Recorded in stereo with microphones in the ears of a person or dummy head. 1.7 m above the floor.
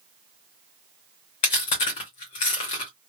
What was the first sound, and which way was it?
Chewing, 25° left (ahead or behind).